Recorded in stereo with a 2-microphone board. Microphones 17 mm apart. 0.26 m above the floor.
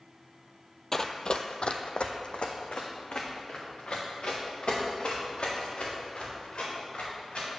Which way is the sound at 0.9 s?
25° left (ahead or behind).